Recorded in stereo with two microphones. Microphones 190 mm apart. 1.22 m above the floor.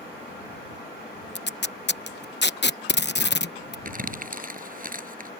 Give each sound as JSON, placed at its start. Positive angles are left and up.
{"t": 1.4, "sound": "tape being pulled", "side_deg": 65}
{"t": 3.9, "sound": "crumpling", "side_deg": -50}